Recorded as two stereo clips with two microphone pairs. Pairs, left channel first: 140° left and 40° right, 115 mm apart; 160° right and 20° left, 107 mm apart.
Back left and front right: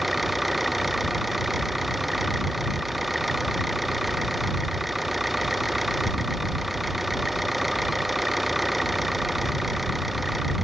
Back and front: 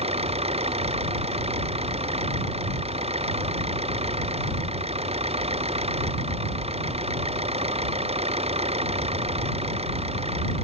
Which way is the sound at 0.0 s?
50° left.